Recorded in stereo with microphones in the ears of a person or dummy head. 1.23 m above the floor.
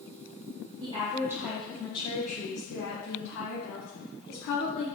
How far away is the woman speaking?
About 1.0 m.